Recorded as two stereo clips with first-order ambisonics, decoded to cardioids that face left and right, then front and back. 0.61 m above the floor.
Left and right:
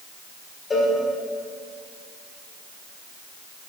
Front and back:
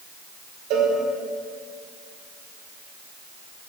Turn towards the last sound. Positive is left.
turn(degrees=165)